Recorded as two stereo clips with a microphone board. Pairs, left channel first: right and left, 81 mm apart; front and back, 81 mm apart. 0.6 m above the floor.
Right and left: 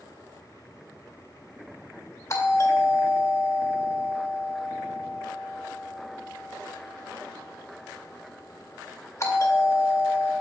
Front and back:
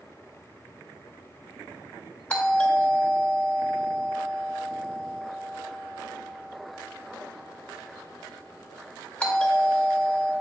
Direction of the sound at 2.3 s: 65° right.